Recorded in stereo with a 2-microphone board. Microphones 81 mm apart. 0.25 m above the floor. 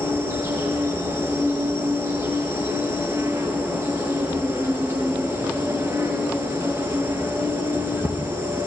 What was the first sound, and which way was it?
An insect, 40° right (ahead or behind).